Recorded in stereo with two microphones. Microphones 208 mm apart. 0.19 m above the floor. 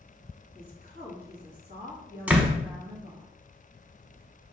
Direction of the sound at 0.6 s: 50° right (ahead or behind).